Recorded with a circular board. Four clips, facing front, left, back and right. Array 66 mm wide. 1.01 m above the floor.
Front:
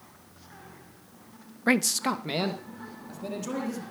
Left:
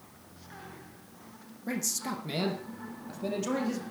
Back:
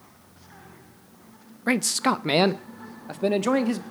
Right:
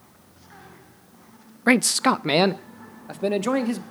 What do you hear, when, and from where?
1.7 s a man speaking: 80° right, 0.5 m; by 3.8 s 145° right, 2.0 m